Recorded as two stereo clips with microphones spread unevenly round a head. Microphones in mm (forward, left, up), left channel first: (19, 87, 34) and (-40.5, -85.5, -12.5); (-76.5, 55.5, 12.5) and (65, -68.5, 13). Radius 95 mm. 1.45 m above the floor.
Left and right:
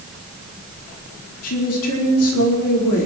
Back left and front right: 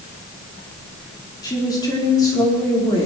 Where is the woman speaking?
70° left, 4.5 m.